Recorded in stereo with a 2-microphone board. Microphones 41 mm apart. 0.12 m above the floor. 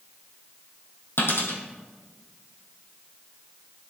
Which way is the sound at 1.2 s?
75° left (ahead or behind).